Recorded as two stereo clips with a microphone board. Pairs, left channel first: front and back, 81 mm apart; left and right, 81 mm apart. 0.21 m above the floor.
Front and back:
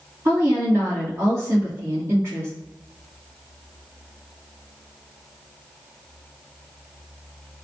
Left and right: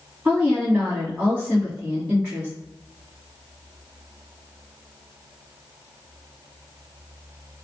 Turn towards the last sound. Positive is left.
turn(degrees=-160)